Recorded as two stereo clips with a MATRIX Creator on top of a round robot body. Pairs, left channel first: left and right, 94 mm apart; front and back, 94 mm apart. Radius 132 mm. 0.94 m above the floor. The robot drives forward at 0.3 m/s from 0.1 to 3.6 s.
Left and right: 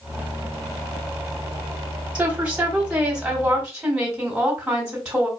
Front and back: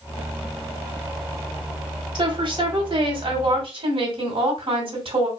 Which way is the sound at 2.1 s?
165° right.